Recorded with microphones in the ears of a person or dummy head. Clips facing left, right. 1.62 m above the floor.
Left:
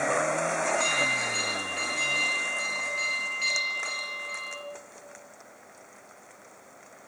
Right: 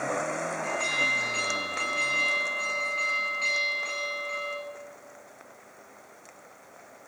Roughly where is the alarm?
Centre.